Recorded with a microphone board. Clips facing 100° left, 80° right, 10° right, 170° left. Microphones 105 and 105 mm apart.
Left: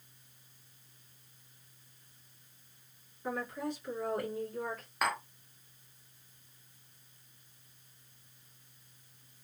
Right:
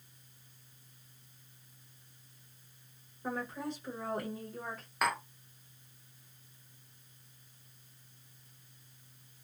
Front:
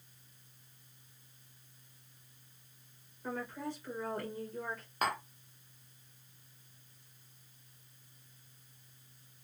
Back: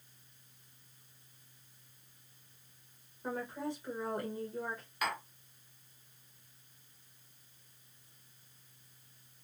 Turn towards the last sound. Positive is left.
turn(degrees=10)